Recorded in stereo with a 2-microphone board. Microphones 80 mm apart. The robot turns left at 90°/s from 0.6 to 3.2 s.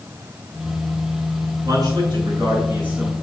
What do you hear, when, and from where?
1.6 s a man speaking: 45° right, 5.5 m; by 3.1 s straight behind, 5.5 m